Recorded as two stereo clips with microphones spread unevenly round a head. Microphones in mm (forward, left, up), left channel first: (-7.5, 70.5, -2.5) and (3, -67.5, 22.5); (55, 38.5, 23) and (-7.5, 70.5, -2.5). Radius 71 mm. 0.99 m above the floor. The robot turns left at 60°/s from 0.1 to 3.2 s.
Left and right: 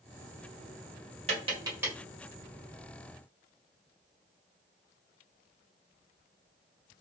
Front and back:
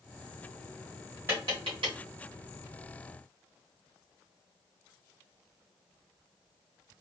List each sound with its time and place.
1.3 s tapping: 125° right, 1.9 m; by 1.9 s 165° right, 1.9 m